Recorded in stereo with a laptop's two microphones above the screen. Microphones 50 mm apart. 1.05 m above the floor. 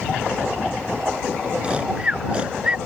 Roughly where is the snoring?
Right.